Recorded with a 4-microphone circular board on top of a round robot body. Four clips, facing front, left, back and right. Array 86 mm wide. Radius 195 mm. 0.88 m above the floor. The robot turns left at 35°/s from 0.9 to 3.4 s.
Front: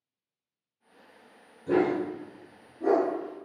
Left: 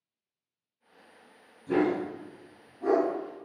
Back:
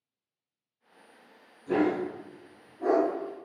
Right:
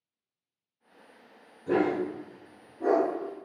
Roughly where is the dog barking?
Ahead right.